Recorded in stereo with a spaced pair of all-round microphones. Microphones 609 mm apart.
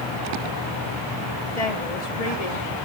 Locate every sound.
1.6 s a woman speaking: 75° left (ahead or behind), 2.5 m